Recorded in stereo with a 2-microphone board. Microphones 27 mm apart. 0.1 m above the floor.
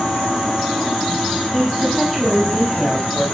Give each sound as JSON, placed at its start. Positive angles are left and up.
{"t": 1.5, "sound": "a woman speaking", "side_deg": -10, "distance_m": 10.0}